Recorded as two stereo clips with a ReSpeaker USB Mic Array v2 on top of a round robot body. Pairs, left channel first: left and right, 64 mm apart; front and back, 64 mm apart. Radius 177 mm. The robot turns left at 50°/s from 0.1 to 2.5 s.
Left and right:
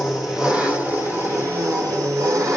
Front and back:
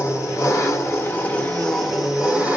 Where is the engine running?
Straight ahead, 2 m; by 2.6 s 120° right, 2 m.